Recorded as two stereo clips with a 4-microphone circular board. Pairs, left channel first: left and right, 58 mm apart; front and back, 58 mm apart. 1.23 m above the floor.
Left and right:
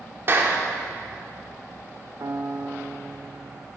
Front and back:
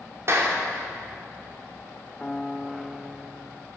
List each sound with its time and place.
0.3 s a clap: 140° right, 2.5 m
2.2 s a piano: 70° right, 0.7 m